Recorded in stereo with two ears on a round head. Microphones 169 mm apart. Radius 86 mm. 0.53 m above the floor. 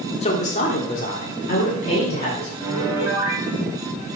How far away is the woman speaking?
About 1.5 m.